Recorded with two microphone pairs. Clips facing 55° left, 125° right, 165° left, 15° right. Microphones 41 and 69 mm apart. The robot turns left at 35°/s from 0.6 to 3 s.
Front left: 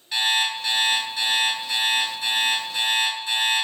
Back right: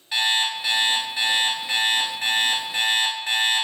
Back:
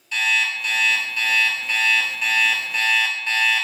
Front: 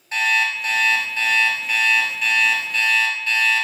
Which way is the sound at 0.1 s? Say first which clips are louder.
Even, front 2 dB; 50° right.